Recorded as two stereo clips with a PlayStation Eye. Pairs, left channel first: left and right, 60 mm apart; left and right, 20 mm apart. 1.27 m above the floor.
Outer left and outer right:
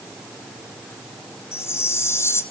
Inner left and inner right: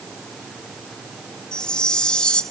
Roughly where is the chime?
Left.